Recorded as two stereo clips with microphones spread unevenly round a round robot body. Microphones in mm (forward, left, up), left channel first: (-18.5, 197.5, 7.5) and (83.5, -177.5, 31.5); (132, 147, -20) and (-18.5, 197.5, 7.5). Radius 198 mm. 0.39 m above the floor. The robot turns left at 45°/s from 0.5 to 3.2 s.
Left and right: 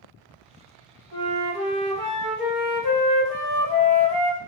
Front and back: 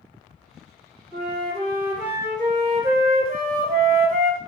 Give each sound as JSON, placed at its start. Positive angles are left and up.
{"t": 1.1, "sound": "a flute", "azimuth_deg": -140, "distance_m": 1.0}